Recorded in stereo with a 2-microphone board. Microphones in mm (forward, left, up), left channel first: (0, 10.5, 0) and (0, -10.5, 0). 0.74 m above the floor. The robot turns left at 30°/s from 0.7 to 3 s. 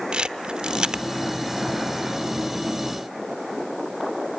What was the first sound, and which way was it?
A camera shutter, 45° right (ahead or behind).